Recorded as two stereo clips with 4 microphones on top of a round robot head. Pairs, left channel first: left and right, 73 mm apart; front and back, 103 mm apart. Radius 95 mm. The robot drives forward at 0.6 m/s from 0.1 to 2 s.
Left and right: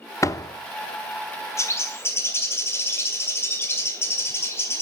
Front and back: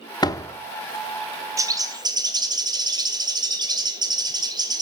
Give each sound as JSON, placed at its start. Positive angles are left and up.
{"t": 0.2, "sound": "a door slam", "azimuth_deg": 45, "distance_m": 0.7}
{"t": 1.6, "sound": "a bird", "azimuth_deg": 130, "distance_m": 1.1}